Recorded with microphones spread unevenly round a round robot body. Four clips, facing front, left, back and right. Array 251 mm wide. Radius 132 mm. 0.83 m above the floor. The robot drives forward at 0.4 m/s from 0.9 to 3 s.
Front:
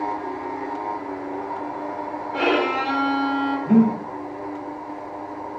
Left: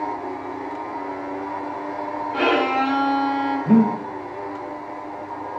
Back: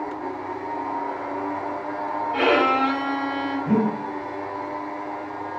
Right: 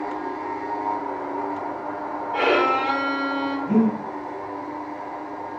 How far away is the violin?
About 1.2 m.